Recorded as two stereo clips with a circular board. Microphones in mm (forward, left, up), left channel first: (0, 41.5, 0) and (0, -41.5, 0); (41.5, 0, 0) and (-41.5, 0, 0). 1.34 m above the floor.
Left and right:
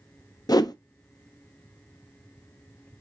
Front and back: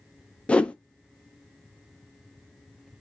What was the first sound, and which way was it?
A whoosh, 70° left.